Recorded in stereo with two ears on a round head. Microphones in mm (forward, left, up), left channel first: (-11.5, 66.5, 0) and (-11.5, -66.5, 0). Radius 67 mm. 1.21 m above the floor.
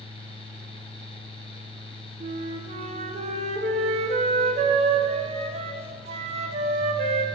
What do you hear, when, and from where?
2.2 s a flute: 45° right (ahead or behind), 0.6 m